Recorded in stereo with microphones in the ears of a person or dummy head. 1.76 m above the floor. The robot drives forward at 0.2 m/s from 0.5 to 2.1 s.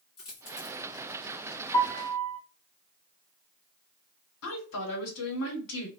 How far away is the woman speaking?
About 1.5 m.